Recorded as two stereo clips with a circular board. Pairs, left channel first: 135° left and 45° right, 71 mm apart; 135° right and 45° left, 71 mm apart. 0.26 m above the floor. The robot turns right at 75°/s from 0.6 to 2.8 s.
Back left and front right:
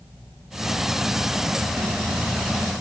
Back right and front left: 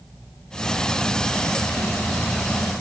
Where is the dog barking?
No dog barking in this recording.